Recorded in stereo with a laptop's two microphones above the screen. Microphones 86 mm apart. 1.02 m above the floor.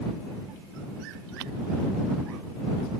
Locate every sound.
Only background noise.